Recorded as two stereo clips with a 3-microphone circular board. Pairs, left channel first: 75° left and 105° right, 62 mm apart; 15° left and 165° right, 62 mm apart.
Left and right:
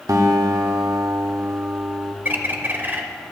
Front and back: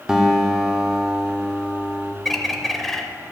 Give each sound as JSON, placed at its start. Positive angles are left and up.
{"t": 0.1, "sound": "a guitar", "azimuth_deg": -90, "distance_m": 1.1}
{"t": 2.2, "sound": "a bird", "azimuth_deg": -70, "distance_m": 0.8}